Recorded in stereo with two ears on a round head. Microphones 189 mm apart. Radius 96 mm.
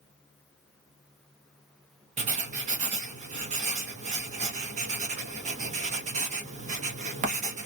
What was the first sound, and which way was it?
Writing, 35° right (ahead or behind).